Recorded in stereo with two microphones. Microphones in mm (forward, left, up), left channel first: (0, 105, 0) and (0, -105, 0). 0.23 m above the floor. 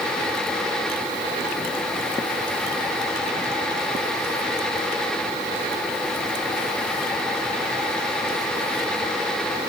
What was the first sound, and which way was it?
Only background noise.